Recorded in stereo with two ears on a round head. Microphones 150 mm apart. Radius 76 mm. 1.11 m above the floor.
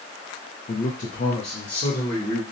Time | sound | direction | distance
0.7 | a man speaking | 45° left (ahead or behind) | 0.5 m